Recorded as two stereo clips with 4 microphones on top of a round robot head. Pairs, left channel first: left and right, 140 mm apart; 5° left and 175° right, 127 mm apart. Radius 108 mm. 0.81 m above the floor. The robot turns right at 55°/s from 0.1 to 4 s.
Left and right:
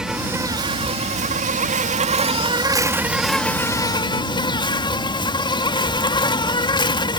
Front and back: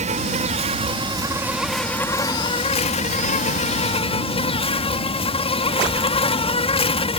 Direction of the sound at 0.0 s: 175° right.